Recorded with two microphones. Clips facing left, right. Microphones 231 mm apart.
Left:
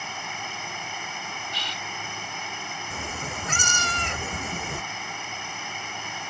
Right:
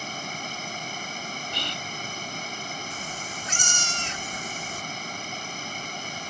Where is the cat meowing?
65° left (ahead or behind).